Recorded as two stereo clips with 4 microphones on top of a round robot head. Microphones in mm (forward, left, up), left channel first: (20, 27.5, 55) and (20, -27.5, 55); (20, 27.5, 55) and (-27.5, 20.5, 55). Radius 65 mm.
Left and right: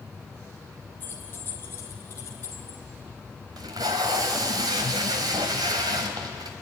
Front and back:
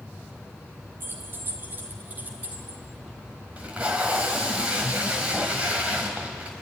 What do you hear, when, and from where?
1.0 s keys jangling: 150° left, 2.5 m; by 2.8 s 135° left, 3 m
3.6 s tape being pulled: 100° right, 1.3 m